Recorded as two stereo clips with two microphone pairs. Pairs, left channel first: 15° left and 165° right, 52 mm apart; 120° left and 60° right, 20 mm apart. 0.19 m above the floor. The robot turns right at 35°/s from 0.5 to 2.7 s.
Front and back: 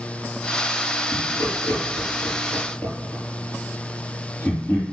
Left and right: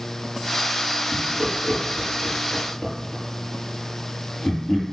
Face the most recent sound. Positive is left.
turn(degrees=80)